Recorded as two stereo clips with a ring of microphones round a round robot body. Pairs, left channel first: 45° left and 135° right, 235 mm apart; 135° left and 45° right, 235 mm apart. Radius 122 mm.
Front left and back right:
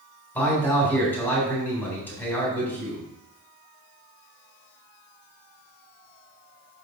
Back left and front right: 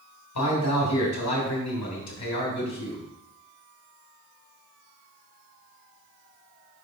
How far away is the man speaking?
About 3.5 m.